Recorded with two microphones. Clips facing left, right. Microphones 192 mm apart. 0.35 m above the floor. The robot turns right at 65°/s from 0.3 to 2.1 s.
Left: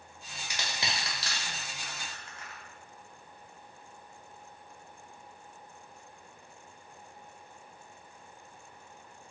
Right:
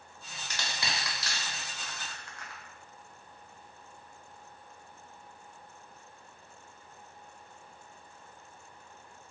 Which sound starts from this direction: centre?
Crushing, at 0.5 s.